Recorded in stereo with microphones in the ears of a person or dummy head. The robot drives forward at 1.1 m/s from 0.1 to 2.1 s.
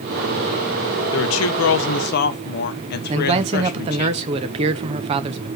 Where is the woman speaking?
65° left (ahead or behind), 1.0 m; by 4.1 s 55° left (ahead or behind), 1.2 m.